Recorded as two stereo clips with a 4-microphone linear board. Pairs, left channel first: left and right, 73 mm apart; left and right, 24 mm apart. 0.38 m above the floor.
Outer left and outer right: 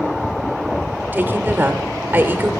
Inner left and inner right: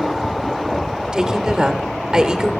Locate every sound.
1.1 s a woman speaking: 25° right (ahead or behind), 0.9 m